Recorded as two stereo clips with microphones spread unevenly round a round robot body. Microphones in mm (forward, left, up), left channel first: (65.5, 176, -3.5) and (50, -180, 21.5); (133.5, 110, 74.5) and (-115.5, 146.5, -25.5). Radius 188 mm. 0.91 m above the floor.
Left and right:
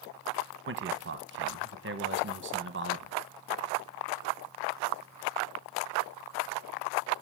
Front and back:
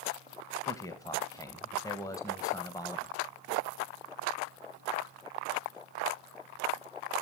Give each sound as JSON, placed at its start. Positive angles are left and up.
{"t": 0.7, "sound": "a man speaking", "azimuth_deg": -115, "distance_m": 1.0}